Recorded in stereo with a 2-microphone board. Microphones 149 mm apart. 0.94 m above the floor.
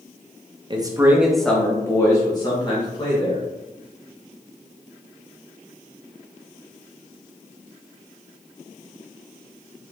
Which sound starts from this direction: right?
A man speaking, at 0.7 s.